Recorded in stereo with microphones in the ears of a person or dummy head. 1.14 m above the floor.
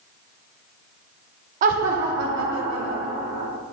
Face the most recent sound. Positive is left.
turn(degrees=-65)  # may be behind; listen again after turning